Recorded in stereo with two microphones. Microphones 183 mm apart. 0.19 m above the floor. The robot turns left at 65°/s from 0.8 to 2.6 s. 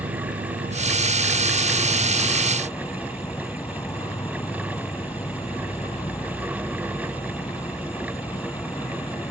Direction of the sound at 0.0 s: 80° right.